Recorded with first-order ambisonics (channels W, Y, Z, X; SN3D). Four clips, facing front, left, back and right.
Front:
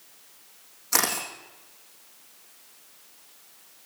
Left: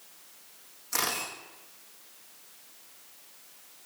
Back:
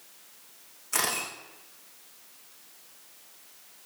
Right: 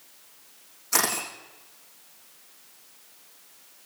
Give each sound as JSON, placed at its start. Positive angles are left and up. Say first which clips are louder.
{"t": 0.9, "sound": "a camera shutter", "louder": "right 5 dB, front 3 dB", "azimuth_deg": -20, "distance_m": 8.0}